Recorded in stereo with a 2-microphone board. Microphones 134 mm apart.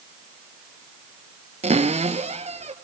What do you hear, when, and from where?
1.6 s a cupboard door: 50° right (ahead or behind), 1.1 m